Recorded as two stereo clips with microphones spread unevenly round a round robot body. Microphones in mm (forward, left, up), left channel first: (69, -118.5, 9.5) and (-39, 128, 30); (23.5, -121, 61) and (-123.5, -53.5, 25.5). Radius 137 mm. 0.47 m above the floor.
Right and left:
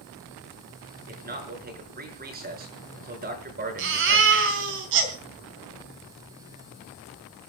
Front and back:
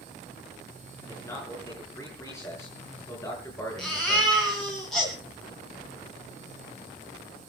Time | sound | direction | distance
1.1 | a man speaking | 55° left | 6.5 m
3.8 | a baby crying | 65° left | 3.5 m